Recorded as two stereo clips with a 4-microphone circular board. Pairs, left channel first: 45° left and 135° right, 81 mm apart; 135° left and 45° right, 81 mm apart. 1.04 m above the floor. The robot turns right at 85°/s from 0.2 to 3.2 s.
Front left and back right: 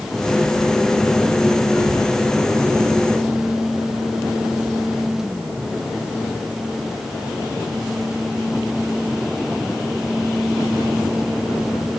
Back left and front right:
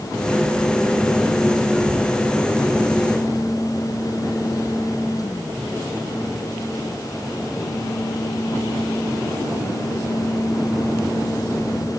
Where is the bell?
No bell in this recording.